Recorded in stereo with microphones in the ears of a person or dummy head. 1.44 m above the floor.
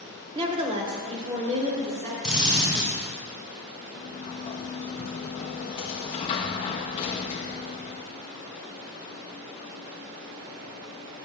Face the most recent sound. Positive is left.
turn(degrees=30)  # may be behind; listen again after turning